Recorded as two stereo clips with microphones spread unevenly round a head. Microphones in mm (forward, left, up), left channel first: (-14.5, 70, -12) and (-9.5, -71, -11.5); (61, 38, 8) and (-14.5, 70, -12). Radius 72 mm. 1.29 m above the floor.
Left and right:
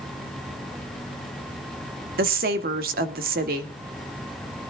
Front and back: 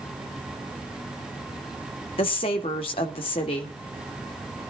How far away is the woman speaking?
About 1.9 m.